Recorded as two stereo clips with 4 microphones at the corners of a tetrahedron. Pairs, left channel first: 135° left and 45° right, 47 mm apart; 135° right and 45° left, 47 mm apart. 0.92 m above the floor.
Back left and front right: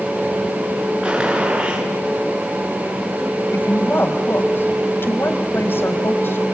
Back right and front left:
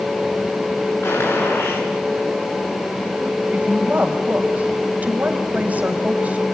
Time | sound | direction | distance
1.0 | a gunshot | 110° right | 9.5 m
3.5 | a woman speaking | 100° left | 4.5 m